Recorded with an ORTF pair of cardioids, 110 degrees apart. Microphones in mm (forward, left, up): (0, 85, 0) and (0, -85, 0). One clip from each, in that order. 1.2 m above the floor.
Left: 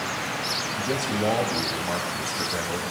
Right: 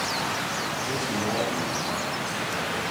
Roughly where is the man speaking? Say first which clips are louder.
Left 1 dB; ahead left.